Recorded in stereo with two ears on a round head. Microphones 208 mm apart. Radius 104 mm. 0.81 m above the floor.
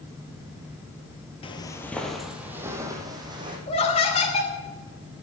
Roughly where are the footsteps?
Left.